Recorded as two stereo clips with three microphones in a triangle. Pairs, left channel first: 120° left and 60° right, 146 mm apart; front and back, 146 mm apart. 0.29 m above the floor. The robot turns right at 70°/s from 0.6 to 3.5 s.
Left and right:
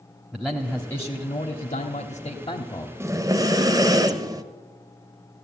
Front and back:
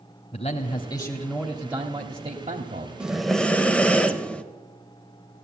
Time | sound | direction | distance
0.3 | a man speaking | 25° left | 1.3 m
3.0 | breathing | 105° right | 1.0 m